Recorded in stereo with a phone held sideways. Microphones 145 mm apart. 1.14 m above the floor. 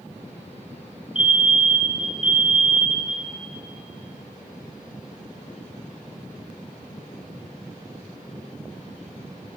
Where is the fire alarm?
10° right (ahead or behind), 1.6 m.